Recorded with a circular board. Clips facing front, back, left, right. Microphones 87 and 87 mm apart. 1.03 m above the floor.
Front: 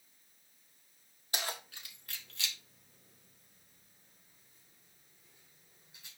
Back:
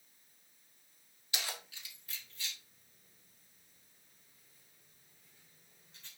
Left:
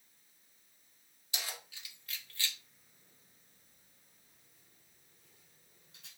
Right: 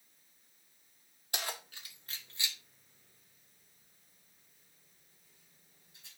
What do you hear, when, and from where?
1.3 s keys jangling: 50° right, 1.7 m; by 6.1 s 80° left, 3 m